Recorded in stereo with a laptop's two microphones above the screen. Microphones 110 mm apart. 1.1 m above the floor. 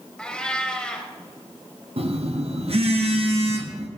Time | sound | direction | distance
0.2 | a cat meowing | 10° left (ahead or behind) | 1.0 m
2.0 | a phone buzzing | 60° right (ahead or behind) | 0.9 m